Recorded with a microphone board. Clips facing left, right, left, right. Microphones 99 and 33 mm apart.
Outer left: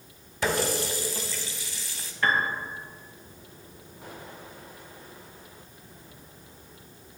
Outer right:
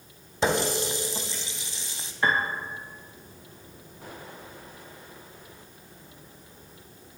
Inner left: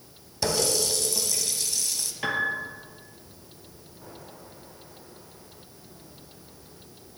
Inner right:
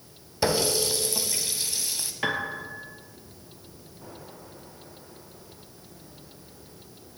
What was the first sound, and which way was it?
A running tap, 20° right (ahead or behind).